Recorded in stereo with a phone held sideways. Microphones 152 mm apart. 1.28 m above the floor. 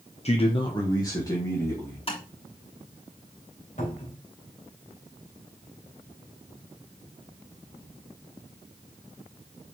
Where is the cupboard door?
55° left (ahead or behind), 2.5 m.